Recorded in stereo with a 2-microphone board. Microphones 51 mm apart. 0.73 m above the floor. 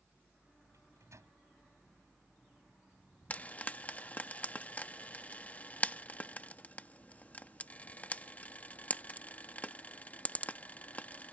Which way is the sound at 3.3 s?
30° left (ahead or behind).